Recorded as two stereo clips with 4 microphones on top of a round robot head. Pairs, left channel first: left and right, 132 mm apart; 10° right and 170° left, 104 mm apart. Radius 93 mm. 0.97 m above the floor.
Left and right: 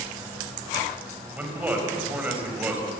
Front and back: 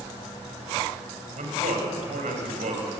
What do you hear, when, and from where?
1.4 s a man speaking: 165° right, 4.5 m